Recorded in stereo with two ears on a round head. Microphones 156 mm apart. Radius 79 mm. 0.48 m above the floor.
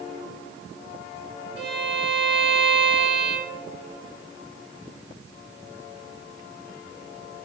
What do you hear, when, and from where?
1.6 s a violin: 5° right (ahead or behind), 4.5 m